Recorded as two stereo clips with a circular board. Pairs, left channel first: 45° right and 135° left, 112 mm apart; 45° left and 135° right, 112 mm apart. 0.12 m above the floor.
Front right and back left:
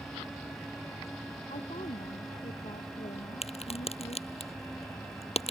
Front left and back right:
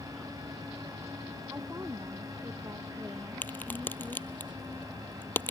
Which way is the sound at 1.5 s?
70° right.